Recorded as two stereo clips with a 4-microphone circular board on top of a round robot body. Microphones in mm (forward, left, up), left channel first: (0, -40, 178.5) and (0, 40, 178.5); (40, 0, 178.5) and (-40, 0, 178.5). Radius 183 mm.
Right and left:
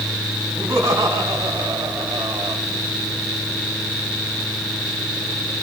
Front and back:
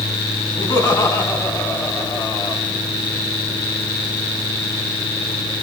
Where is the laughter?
40° left, 6 m; by 2.6 s 45° left, 3 m.